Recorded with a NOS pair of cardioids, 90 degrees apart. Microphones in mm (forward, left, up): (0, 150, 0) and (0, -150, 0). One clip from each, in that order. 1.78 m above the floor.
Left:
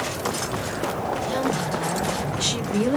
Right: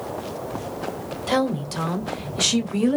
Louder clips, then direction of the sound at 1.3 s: Right 1 dB; 45° right.